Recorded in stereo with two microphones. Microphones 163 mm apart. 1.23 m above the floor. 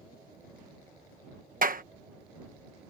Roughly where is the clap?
Right.